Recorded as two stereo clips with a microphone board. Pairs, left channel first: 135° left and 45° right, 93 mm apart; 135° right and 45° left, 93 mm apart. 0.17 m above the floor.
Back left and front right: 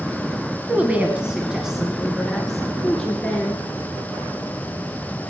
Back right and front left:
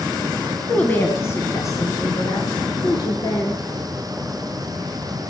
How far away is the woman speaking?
About 1.2 m.